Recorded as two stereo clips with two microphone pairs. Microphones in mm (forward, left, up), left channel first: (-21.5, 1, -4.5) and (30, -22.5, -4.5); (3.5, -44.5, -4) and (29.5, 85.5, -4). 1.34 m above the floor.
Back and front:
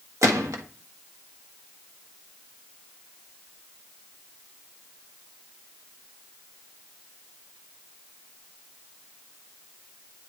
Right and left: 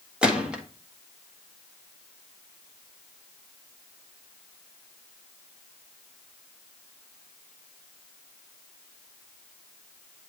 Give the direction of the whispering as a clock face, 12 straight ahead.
I don't hear whispering.